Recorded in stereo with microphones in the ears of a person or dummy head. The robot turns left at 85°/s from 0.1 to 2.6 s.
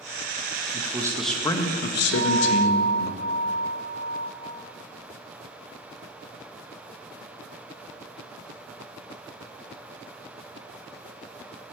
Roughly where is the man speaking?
Behind right.